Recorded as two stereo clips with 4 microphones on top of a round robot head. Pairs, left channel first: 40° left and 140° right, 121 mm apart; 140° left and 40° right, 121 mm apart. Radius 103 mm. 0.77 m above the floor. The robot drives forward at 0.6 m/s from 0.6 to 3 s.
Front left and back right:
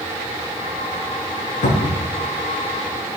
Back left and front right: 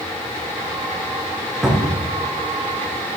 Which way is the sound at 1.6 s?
45° left.